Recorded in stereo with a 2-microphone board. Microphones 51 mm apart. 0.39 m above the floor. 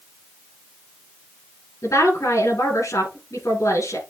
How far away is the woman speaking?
About 8 m.